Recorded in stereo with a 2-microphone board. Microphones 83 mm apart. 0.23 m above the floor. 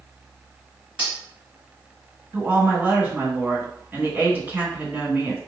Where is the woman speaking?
20° right (ahead or behind), 1.8 m.